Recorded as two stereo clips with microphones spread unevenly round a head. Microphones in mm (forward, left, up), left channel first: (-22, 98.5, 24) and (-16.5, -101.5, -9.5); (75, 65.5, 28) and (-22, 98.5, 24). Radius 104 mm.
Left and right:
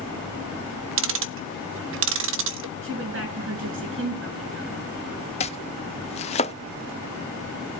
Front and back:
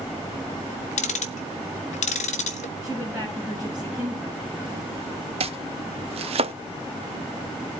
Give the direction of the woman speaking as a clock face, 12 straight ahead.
4 o'clock.